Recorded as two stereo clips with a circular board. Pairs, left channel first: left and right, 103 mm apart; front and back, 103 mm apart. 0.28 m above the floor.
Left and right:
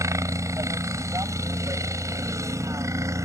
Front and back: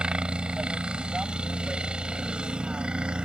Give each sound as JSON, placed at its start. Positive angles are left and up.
{"t": 0.0, "sound": "a helicopter", "azimuth_deg": -105}